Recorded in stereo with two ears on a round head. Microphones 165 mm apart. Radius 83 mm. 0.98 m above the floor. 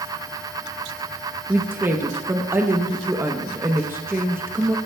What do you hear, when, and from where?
1.5 s a woman speaking: 10° right (ahead or behind), 0.8 m